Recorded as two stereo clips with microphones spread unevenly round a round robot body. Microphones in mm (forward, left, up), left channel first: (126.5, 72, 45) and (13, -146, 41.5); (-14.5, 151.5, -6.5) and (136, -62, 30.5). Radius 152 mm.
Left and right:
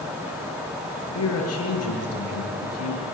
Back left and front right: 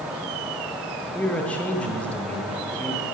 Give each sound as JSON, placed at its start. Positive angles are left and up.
{"t": 1.1, "sound": "a man speaking", "azimuth_deg": 40, "distance_m": 7.0}